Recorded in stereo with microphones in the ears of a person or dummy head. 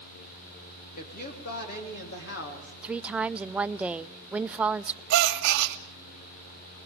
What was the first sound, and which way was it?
A woman speaking, 50° left (ahead or behind).